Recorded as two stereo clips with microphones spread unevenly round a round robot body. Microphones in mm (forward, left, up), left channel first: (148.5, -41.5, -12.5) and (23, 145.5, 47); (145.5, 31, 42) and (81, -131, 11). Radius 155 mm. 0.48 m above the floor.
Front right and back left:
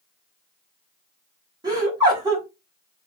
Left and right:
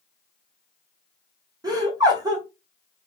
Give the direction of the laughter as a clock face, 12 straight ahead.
5 o'clock.